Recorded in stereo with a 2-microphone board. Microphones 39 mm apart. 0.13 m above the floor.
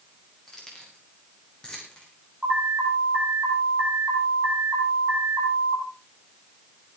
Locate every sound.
0.5 s keys jangling: 20° left (ahead or behind), 7.5 m; by 2.1 s 25° left (ahead or behind), 8 m
2.4 s an alarm: 25° right (ahead or behind), 7 m